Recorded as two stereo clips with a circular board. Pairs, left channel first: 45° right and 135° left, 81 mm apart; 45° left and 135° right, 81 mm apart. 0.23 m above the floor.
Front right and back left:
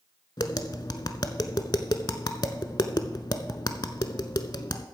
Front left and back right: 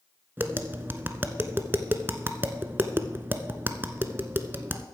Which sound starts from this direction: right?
Tapping, at 0.4 s.